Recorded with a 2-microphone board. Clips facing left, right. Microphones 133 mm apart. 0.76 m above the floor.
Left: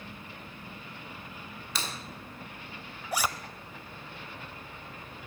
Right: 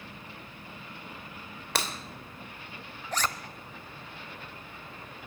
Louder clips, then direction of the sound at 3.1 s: Left 1 dB; 10° left (ahead or behind).